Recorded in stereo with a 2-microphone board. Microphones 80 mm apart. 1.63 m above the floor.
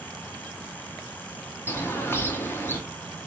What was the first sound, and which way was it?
A bird, 30° left (ahead or behind).